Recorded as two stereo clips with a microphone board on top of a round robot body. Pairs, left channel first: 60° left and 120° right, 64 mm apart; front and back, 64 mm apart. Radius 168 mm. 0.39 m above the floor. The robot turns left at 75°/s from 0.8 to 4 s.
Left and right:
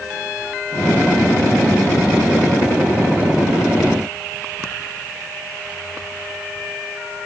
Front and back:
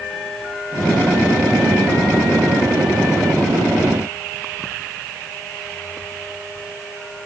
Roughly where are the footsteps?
I don't hear footsteps.